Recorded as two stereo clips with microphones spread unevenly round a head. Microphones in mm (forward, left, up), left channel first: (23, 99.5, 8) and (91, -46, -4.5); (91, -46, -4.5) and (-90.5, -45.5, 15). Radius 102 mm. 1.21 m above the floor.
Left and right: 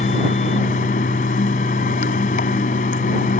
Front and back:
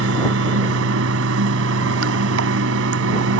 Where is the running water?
170° left.